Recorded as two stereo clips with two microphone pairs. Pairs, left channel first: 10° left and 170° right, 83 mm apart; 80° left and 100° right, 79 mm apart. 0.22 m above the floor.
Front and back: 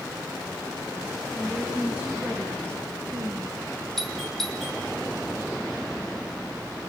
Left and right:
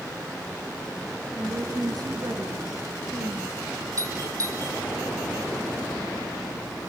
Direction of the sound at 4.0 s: 75° right.